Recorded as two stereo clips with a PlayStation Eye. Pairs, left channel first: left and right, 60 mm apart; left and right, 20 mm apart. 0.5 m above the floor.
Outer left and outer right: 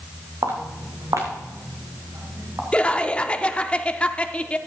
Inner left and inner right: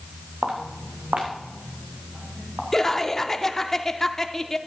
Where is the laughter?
20° left (ahead or behind), 0.7 m.